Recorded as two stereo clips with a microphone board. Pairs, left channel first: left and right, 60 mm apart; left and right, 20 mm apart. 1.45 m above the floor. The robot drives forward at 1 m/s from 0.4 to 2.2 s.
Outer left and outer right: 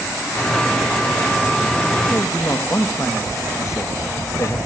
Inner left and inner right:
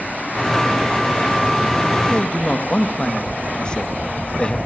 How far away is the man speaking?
About 2.5 m.